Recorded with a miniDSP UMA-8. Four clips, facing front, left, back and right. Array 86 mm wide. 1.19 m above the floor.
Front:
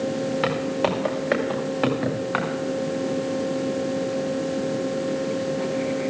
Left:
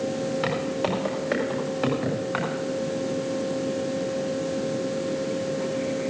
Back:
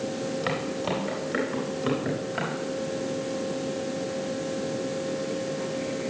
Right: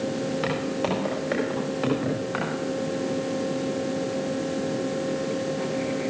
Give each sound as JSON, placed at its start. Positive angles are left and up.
{"t": 0.4, "sound": "footsteps", "azimuth_deg": 0, "distance_m": 8.5}